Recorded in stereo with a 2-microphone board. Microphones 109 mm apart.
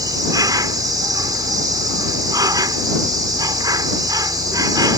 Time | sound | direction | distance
0.0 | an insect | 35° right (ahead or behind) | ?